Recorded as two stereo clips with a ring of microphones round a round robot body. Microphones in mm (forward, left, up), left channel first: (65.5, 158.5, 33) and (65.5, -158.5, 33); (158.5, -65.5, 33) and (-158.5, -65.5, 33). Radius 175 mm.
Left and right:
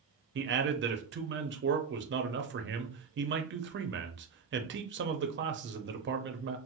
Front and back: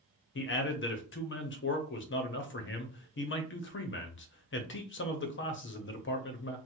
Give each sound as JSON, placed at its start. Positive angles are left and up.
{"t": 0.3, "sound": "a man speaking", "azimuth_deg": -45, "distance_m": 0.7}